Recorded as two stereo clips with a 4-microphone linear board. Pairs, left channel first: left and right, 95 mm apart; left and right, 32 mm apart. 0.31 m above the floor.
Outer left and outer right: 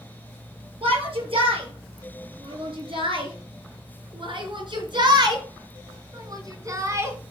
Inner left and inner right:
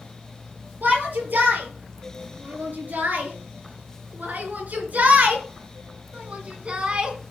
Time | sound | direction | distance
0.8 | a shout | 80° right | 7 m